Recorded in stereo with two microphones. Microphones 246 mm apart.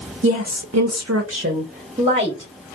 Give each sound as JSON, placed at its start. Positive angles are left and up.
{"t": 0.2, "sound": "a woman speaking", "side_deg": -55, "distance_m": 0.6}